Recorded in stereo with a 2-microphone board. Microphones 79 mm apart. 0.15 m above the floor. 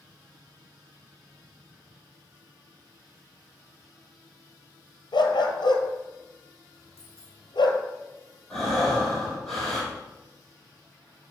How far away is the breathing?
About 2.5 m.